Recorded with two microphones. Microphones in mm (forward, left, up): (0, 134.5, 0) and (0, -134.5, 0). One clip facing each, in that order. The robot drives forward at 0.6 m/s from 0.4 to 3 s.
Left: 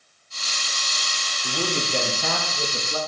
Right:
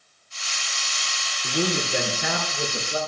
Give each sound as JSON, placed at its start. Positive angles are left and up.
{"t": 1.4, "sound": "a man speaking", "side_deg": -15, "distance_m": 4.5}